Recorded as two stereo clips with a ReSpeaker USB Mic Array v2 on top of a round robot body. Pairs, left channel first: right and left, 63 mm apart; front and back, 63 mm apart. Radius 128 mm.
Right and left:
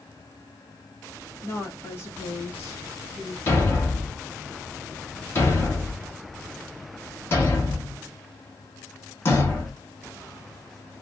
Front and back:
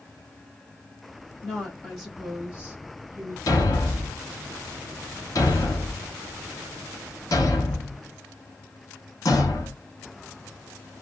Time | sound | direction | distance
1.4 | a woman speaking | 65° right | 1.6 m
3.5 | a thud | 35° right | 1.5 m